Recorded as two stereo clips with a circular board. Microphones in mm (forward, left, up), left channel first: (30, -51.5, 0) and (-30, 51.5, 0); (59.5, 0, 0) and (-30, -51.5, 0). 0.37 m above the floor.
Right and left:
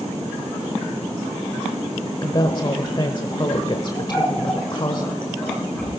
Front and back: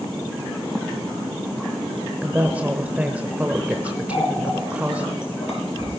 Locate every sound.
2.2 s a woman speaking: 80° right, 1.0 m
4.1 s a running tap: 20° left, 5.5 m